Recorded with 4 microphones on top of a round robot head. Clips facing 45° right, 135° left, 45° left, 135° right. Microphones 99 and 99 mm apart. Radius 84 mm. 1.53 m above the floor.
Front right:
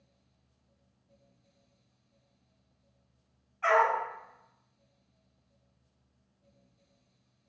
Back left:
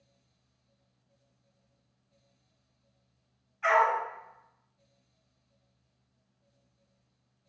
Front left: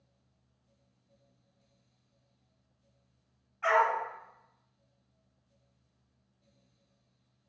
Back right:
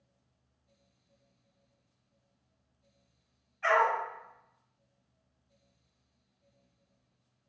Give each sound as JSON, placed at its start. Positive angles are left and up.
{"t": 3.6, "sound": "a dog barking", "azimuth_deg": -5, "distance_m": 1.9}